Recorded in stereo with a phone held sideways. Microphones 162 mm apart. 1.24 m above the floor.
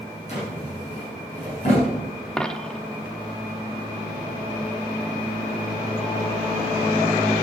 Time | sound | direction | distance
0.3 | a drawer | 45° left (ahead or behind) | 7.5 m
2.4 | a dropped coin | 5° left (ahead or behind) | 0.8 m